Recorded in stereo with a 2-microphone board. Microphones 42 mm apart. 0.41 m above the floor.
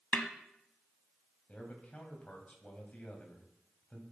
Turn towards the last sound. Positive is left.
turn(degrees=40)  # may be behind; listen again after turning